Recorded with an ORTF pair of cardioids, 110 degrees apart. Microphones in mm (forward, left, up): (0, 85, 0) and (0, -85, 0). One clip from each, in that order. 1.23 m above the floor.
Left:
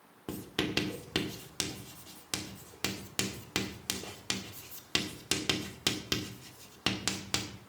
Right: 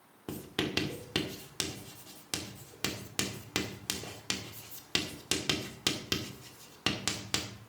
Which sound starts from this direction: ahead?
Writing, at 0.3 s.